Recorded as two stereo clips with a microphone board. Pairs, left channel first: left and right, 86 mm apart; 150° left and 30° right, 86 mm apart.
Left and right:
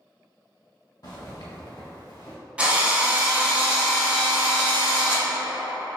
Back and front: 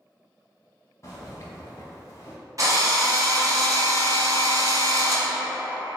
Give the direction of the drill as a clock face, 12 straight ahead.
1 o'clock.